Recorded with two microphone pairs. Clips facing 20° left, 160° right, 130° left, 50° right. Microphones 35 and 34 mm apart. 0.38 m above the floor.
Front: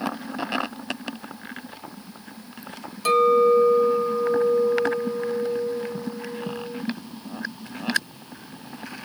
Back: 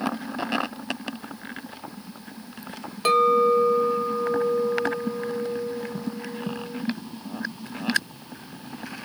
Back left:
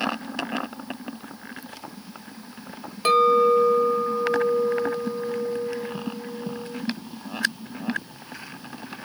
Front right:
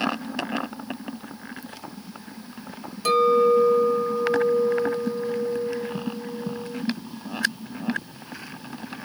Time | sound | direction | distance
3.0 | a clink | 165° left | 1.0 m